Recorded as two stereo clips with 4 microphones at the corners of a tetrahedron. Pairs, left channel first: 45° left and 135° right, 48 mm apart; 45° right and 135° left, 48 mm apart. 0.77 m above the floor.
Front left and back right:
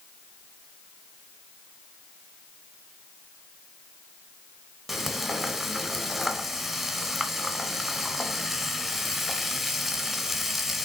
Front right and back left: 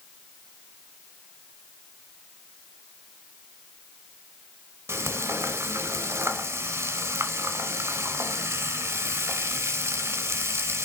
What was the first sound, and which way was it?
Frying, 140° left.